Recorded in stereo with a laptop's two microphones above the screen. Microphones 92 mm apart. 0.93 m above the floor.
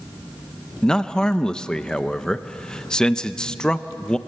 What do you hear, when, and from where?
0.8 s a man speaking: 10° left (ahead or behind), 0.6 m